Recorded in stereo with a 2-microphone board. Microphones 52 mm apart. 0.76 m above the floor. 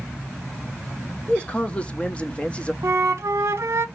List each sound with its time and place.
1.3 s a man speaking: 20° left (ahead or behind), 0.5 m
2.8 s a flute: 60° right (ahead or behind), 0.8 m